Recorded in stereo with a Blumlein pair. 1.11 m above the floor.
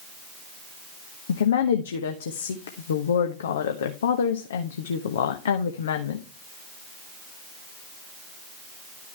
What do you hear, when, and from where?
1.3 s a woman speaking: 60° left, 1.0 m